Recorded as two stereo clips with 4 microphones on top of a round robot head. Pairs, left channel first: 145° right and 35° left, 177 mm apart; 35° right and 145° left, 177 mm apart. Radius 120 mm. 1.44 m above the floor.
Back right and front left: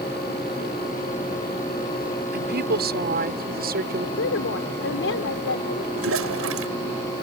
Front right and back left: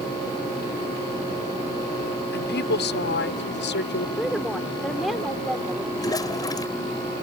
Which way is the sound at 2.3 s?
Straight ahead.